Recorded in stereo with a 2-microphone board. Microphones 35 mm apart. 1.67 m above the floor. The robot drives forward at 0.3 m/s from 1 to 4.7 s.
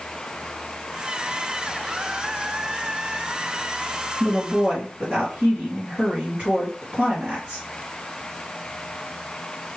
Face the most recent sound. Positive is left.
turn(degrees=-35)  # may be behind; listen again after turning